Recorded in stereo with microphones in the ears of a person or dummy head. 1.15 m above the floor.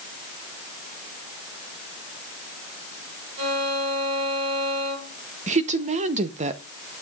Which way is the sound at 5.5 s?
35° right (ahead or behind).